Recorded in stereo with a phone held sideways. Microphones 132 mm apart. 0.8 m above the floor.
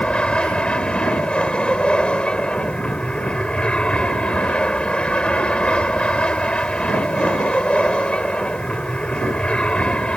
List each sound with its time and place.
0.0 s an aircraft: 10° left (ahead or behind)